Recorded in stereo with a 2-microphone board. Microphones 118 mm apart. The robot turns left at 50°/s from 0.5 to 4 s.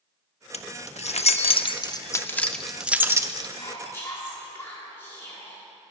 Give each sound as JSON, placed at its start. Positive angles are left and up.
{"t": 0.5, "sound": "keys jangling", "side_deg": 65, "distance_m": 0.5}
{"t": 3.5, "sound": "whispering", "side_deg": 40, "distance_m": 1.5}